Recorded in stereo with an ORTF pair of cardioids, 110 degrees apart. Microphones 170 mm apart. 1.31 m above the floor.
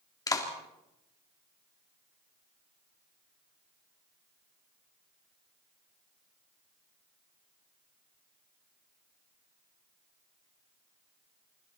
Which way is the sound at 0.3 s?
20° left.